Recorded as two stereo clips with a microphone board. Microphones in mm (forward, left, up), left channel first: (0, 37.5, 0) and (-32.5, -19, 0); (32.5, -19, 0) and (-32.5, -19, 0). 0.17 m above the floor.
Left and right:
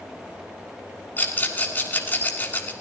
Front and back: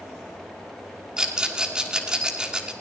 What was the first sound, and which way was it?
A rattle, 110° left.